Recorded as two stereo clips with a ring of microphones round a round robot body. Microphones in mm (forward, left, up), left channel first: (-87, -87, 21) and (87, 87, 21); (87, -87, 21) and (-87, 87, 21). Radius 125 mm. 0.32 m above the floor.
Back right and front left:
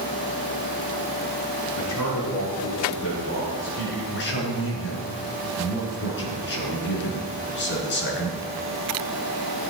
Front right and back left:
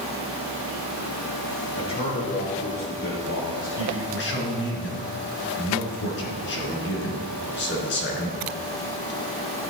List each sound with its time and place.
1.8 s a man speaking: 115° right, 5 m; by 4.0 s 70° right, 5 m
4.1 s a man speaking: 90° right, 3.5 m